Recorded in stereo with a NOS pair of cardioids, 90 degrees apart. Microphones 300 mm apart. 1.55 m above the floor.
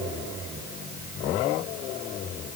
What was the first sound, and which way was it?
Only background noise.